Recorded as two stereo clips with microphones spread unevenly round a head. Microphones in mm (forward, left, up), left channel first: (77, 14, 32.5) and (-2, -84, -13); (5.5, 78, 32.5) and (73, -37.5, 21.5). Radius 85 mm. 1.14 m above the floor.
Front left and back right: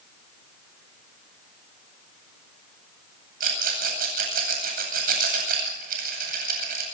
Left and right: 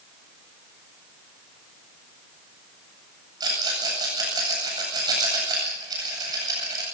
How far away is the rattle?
About 9 m.